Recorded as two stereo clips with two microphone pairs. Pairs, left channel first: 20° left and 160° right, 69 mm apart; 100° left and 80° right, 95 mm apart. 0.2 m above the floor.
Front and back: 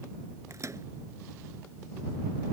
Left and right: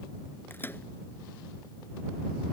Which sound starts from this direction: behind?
A microwave, at 0.5 s.